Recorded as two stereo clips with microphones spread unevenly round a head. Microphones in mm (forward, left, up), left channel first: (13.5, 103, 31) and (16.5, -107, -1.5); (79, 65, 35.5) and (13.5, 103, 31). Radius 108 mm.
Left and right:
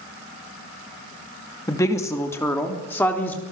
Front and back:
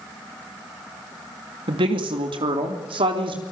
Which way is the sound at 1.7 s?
165° left.